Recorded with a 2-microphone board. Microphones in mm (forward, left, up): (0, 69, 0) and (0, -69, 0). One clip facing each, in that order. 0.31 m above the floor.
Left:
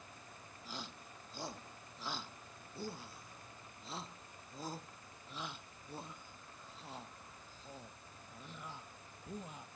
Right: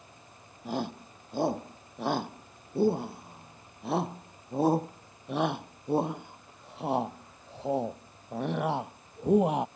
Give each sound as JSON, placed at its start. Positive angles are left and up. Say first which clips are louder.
{"t": 0.7, "sound": "a shout", "louder": "right 17 dB", "side_deg": -60}